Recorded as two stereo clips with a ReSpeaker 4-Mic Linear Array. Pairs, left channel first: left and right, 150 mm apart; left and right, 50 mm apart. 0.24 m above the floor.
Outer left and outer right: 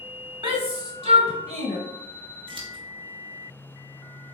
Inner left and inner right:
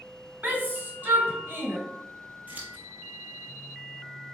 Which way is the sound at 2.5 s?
40° right (ahead or behind).